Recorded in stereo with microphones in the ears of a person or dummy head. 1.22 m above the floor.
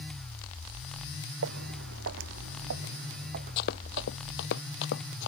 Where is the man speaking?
No man speaking in this recording.